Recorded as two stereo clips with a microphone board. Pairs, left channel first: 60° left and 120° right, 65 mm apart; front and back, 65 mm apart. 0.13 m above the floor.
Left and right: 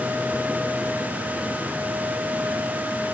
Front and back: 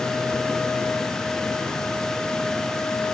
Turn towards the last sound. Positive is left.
No sound to turn to.